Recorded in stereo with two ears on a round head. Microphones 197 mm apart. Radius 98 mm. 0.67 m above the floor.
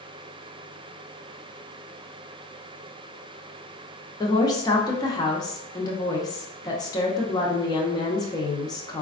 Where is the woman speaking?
20° left (ahead or behind), 0.6 m.